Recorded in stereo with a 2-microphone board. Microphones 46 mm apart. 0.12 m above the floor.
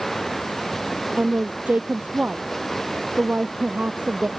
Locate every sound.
0.0 s running water: 5° left (ahead or behind)
1.2 s a woman speaking: 30° right (ahead or behind)